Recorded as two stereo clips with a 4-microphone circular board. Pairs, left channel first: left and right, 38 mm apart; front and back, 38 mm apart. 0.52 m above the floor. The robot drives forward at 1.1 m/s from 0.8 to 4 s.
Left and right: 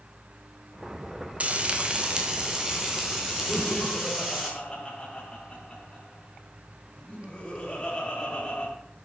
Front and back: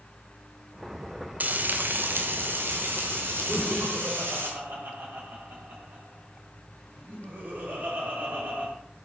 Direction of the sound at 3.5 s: 160° left.